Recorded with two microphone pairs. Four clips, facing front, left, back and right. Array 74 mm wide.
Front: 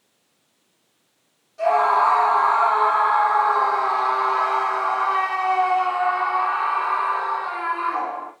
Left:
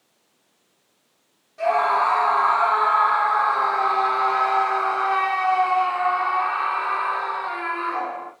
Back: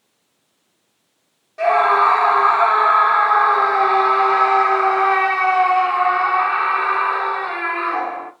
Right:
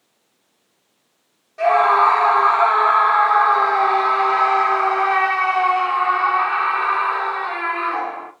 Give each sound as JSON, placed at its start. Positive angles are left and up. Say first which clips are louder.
{"t": 1.6, "sound": "a scream", "louder": "right 5 dB, back 3 dB", "azimuth_deg": -145, "distance_m": 1.4}